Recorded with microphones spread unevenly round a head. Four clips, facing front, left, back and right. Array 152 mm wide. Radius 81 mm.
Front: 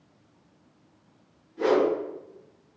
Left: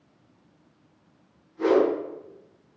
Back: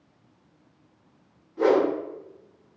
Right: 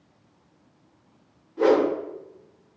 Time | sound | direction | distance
1.6 | a whoosh | 115° right | 1.8 m